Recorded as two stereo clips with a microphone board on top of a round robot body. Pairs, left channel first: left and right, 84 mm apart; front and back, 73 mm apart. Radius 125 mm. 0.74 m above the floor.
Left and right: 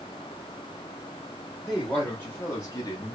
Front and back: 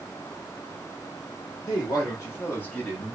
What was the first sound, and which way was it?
A woman speaking, 10° left.